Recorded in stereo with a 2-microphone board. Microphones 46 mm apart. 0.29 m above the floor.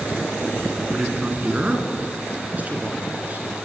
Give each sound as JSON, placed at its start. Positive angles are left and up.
{"t": 0.9, "sound": "a man speaking", "side_deg": -20, "distance_m": 3.0}